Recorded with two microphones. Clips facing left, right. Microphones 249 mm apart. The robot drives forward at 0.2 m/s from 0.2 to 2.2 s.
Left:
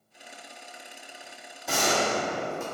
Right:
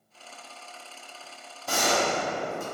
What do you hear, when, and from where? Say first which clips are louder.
1.7 s a gunshot: even; centre (ahead or behind), 1.2 m